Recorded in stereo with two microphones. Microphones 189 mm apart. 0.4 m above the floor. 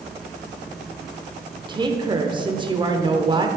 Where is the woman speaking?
25° right (ahead or behind), 0.8 m.